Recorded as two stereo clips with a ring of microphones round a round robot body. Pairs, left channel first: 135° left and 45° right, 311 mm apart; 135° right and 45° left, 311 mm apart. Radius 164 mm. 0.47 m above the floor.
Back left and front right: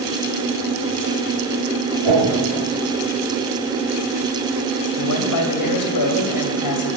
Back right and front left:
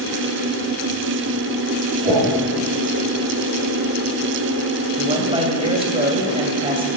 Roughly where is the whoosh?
Ahead right.